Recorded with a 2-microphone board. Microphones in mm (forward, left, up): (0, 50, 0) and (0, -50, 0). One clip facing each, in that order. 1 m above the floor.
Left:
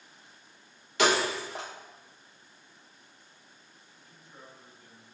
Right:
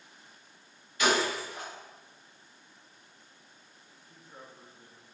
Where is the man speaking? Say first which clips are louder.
Right 2 dB; 40° right (ahead or behind), 1.2 m.